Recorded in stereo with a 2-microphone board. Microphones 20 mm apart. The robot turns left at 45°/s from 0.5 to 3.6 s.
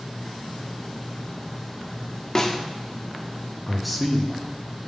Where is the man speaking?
Centre (ahead or behind), 0.8 m.